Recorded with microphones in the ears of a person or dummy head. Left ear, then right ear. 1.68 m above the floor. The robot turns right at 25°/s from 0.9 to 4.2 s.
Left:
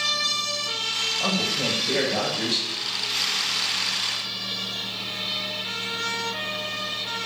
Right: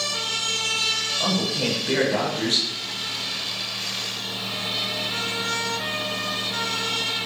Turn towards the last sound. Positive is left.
turn(degrees=-95)